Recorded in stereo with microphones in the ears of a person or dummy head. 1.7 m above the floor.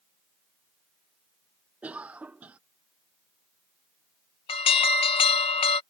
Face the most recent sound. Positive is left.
turn(degrees=30)  # may be behind; listen again after turning